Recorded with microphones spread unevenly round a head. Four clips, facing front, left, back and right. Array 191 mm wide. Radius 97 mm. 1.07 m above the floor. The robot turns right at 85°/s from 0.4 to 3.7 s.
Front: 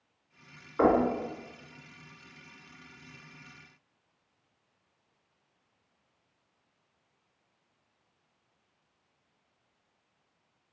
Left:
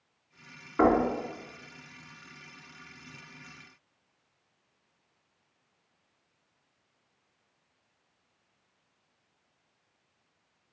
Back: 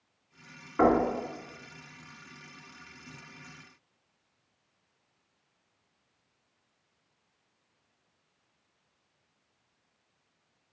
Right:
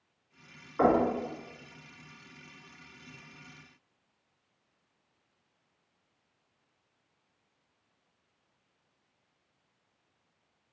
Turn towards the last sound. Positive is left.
turn(degrees=5)